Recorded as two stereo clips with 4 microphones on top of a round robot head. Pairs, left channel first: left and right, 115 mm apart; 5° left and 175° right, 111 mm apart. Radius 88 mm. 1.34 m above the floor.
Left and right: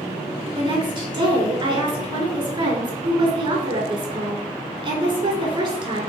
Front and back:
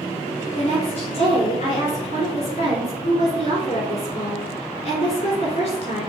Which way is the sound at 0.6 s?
40° right.